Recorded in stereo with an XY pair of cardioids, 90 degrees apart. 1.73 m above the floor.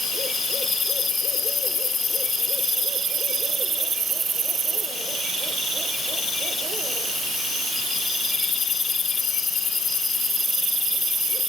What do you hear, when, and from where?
Only background noise.